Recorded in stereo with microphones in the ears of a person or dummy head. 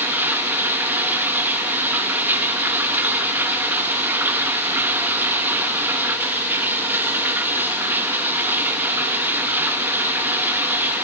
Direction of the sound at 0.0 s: 5° right (ahead or behind).